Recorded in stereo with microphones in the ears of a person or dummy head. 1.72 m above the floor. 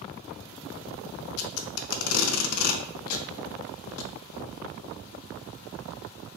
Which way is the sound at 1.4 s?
85° left.